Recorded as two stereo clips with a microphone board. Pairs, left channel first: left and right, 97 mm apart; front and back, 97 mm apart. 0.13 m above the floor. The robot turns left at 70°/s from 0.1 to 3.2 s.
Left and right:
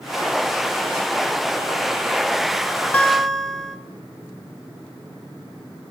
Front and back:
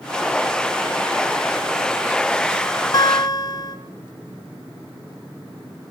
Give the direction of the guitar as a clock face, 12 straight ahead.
11 o'clock.